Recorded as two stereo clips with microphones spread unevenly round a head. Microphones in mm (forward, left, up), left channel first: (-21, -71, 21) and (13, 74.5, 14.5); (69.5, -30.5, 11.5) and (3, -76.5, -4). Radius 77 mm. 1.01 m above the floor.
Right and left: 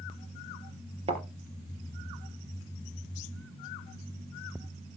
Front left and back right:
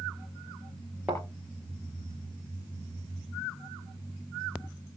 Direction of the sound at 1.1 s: 130° left.